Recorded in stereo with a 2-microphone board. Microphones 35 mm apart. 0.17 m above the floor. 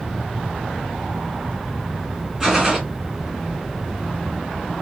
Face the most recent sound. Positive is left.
turn(degrees=-5)  # may be behind; listen again after turning